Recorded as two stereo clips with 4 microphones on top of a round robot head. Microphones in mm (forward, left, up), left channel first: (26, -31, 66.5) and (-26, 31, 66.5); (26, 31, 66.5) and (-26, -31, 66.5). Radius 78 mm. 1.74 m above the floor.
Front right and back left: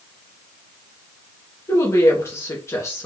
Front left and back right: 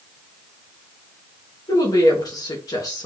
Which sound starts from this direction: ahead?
A woman speaking, at 1.7 s.